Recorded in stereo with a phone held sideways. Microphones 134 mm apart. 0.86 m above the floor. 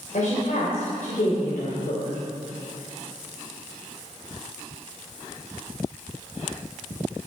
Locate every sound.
0.1 s a woman speaking: 75° left (ahead or behind), 3.5 m